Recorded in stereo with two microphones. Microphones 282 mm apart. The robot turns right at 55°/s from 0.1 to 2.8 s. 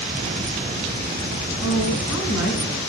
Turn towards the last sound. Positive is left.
turn(degrees=135)